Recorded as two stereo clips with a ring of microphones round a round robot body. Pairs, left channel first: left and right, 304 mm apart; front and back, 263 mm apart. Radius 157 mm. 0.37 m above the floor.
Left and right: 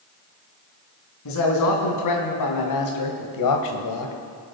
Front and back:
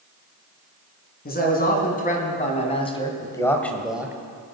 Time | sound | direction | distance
1.2 | a man speaking | 55° left | 4 m